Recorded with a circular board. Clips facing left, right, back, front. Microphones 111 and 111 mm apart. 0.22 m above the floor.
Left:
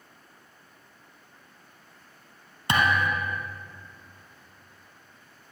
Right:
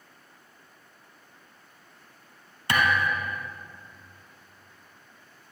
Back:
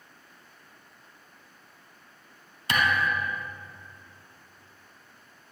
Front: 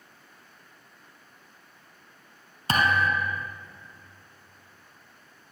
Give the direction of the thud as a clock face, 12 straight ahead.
11 o'clock.